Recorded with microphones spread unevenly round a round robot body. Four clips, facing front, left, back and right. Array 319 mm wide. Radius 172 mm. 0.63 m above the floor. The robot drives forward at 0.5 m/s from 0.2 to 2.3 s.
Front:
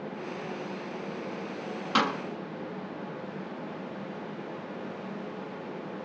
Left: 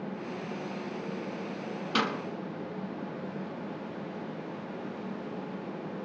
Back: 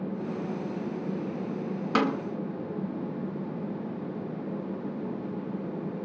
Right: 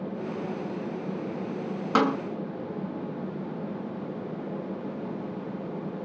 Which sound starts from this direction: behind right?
A snare drum, at 1.9 s.